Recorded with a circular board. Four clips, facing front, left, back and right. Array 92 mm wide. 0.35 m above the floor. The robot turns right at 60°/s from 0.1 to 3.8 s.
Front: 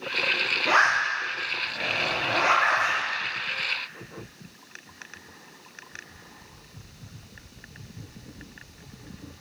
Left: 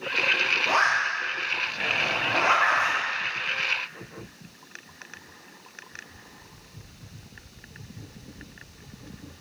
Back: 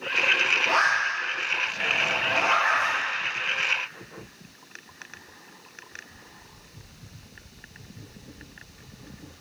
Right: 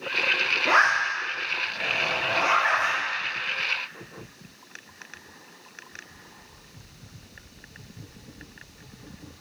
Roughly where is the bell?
No bell in this recording.